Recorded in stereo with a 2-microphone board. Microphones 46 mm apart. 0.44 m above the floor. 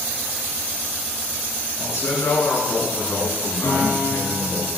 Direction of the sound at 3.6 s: 80° left.